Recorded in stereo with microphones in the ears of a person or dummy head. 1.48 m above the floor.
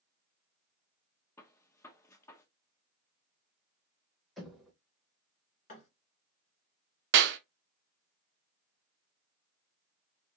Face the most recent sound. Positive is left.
turn(degrees=-65)  # may be behind; listen again after turning